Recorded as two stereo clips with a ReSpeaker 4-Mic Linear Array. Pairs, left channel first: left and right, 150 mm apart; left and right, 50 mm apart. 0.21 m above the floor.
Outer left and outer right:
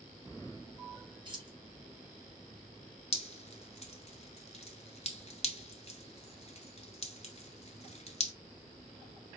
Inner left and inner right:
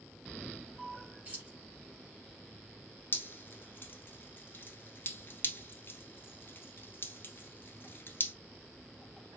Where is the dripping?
45° left (ahead or behind), 0.9 m.